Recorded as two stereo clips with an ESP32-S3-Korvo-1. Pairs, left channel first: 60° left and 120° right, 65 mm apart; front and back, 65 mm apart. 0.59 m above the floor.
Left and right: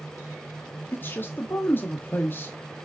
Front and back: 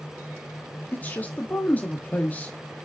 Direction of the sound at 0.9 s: 45° left.